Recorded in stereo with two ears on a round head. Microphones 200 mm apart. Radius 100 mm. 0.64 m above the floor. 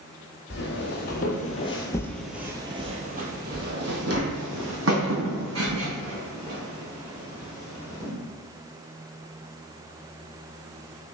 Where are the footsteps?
55° left (ahead or behind), 1.0 m; by 8.1 s 70° right (ahead or behind), 3 m.